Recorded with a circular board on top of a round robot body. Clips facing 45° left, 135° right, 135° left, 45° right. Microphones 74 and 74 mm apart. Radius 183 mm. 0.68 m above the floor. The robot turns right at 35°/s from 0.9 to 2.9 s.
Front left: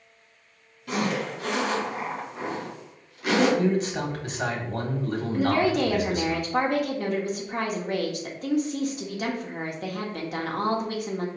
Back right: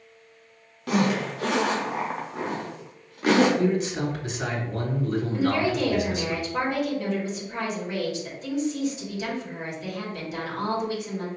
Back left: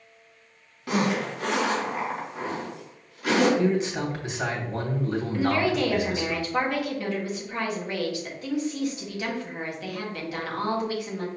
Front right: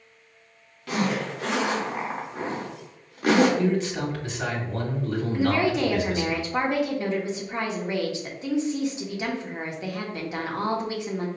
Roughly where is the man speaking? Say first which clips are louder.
Even, even; ahead left.